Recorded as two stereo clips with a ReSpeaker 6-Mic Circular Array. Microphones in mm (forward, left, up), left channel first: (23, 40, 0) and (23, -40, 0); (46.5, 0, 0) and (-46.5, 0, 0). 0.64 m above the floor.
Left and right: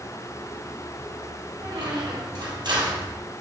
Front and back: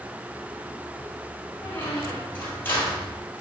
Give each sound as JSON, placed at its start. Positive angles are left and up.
{"t": 1.6, "sound": "a squeak", "azimuth_deg": -70, "distance_m": 1.5}